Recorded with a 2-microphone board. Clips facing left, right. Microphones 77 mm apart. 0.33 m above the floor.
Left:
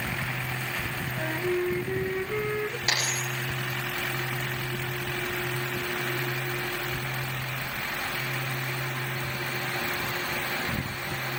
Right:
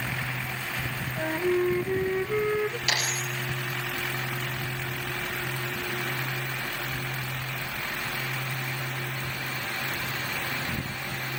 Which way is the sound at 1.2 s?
10° right (ahead or behind).